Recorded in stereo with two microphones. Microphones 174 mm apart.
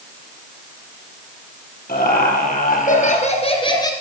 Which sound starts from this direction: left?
Laughter, at 1.9 s.